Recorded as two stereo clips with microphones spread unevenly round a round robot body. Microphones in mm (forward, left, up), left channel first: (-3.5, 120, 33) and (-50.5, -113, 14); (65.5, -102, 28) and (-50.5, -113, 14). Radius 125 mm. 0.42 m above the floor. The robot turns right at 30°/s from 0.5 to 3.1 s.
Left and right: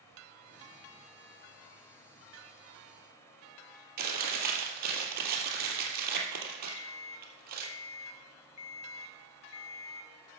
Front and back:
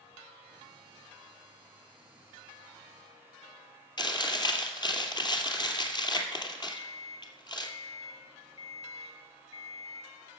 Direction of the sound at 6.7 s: 55° left.